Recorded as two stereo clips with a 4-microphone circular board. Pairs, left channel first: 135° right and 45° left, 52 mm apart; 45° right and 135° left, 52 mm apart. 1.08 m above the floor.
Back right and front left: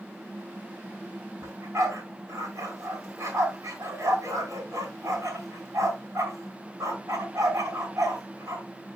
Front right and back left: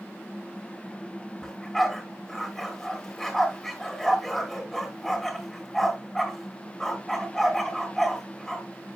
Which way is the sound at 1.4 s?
35° left.